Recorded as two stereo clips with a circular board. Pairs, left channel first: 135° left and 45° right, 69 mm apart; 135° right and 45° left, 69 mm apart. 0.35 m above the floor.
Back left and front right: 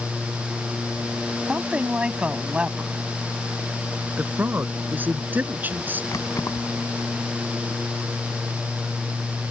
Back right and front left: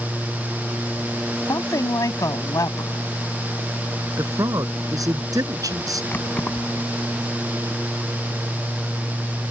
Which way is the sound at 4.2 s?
15° left.